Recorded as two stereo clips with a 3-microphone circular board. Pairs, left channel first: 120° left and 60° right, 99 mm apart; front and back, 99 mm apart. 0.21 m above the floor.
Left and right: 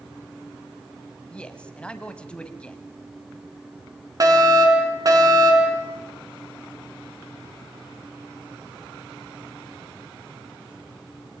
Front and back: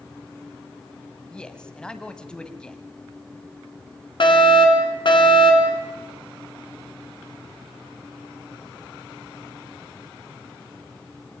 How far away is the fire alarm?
About 3.5 m.